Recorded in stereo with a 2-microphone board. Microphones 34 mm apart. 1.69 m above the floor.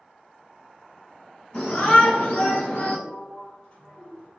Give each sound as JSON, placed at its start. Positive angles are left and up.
{"t": 1.5, "sound": "a shout", "side_deg": 50, "distance_m": 1.6}
{"t": 3.1, "sound": "a sliding door", "side_deg": 40, "distance_m": 1.3}